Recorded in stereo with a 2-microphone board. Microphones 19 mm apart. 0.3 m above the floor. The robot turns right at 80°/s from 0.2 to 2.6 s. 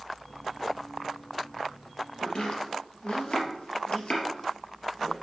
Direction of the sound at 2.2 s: 40° left (ahead or behind).